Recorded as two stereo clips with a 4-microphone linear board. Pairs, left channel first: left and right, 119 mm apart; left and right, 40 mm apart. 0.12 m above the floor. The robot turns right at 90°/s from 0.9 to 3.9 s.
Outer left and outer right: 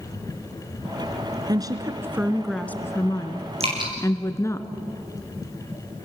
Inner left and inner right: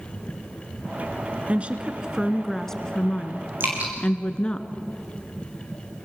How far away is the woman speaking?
About 1.4 m.